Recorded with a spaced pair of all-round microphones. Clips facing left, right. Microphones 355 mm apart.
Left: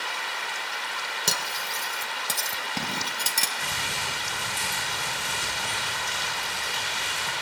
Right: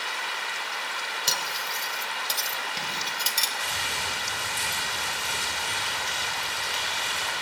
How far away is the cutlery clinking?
About 0.7 m.